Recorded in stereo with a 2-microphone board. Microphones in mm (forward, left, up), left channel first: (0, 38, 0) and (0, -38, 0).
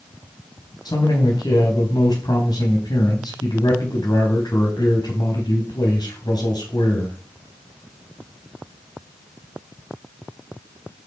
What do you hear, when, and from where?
0.8 s a man speaking: 75° left (ahead or behind), 3.5 m